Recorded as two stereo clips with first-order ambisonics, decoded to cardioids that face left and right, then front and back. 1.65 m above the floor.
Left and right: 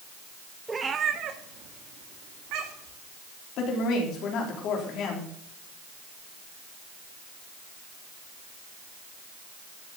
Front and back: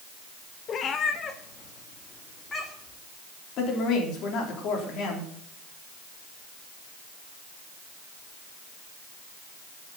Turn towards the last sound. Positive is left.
turn(degrees=45)